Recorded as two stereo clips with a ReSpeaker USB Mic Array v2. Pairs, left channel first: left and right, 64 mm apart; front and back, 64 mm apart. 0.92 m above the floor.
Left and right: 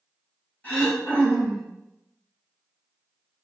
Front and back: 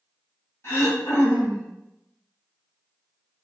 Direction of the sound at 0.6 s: 30° left.